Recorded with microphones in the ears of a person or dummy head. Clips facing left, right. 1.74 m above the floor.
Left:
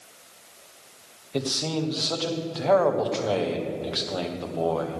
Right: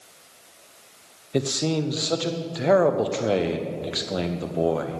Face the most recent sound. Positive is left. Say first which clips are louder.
# right 4 dB
turn(degrees=-30)  # may be behind; listen again after turning